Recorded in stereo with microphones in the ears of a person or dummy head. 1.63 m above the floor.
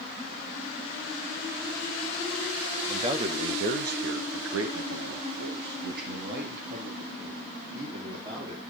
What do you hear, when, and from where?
2.9 s a man speaking: 25° right (ahead or behind), 1.9 m; by 8.6 s 45° right (ahead or behind), 5.5 m